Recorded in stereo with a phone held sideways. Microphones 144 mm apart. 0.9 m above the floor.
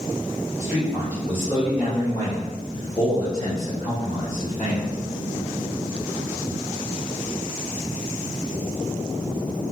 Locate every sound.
0.6 s a man speaking: 10° right (ahead or behind), 1.0 m; by 5.0 s 55° left (ahead or behind), 2.5 m